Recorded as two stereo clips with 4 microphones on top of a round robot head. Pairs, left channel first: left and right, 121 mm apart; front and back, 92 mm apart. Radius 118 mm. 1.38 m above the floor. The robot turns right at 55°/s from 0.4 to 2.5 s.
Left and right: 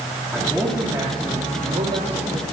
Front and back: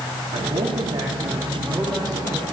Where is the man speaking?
Straight behind, 2.5 m; by 2.4 s 65° right, 2.5 m.